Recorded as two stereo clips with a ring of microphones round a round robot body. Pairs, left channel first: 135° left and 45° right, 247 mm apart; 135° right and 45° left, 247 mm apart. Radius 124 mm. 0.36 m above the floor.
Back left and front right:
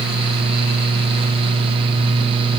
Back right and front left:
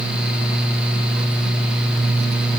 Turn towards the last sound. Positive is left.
No sound to turn to.